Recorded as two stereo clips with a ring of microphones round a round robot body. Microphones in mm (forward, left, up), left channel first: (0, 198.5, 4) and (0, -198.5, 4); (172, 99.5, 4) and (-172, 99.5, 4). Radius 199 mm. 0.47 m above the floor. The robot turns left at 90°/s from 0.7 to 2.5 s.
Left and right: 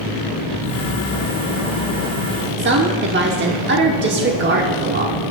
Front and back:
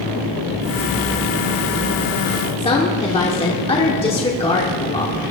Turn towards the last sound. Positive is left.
turn(degrees=-60)